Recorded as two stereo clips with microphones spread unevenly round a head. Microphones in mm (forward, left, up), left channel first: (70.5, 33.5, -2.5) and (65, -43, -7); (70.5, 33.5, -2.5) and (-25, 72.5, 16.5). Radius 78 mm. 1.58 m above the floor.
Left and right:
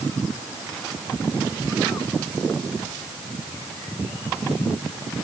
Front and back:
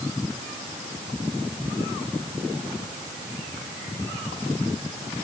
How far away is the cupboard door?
I don't hear a cupboard door.